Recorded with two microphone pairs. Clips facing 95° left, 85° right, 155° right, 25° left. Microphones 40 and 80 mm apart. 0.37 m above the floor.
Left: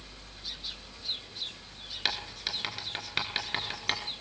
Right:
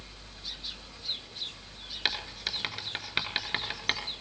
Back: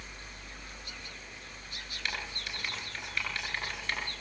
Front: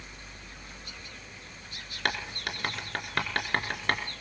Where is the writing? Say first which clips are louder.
Right 1 dB, front 7 dB; 5° right, 3.5 m.